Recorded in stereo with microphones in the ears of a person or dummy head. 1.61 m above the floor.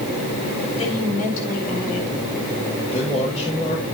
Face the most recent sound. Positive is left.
turn(degrees=40)  # may be behind; listen again after turning